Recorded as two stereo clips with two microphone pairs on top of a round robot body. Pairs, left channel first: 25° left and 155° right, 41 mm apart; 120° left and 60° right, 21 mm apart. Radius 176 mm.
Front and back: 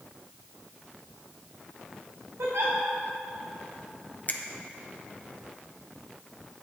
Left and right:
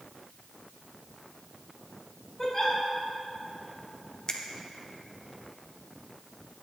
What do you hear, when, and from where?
2.4 s a giggle: 160° right, 2.5 m
4.3 s a finger snap: 65° left, 1.0 m